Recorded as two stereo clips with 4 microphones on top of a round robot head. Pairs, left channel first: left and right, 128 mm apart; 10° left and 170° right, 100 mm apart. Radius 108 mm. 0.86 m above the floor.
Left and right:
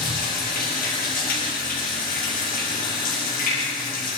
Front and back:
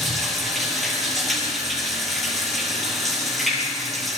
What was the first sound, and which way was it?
Running water, 100° left.